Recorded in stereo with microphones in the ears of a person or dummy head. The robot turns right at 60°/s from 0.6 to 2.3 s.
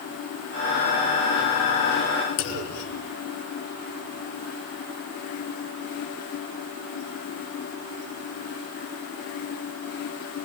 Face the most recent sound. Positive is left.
turn(degrees=75)  # may be behind; listen again after turning